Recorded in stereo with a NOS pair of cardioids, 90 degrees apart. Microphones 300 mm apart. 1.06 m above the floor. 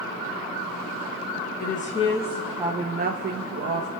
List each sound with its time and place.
1.6 s a woman speaking: 30° left, 0.9 m; by 3.9 s 60° right, 0.9 m